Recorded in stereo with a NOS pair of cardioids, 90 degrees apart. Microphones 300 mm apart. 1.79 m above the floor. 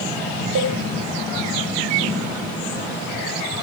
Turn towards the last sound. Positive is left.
turn(degrees=-50)